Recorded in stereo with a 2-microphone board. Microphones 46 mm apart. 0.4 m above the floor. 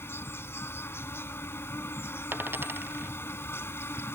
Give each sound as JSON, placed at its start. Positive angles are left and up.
{"t": 0.0, "sound": "an insect", "side_deg": 65}
{"t": 2.3, "sound": "a dropped coin", "side_deg": -50}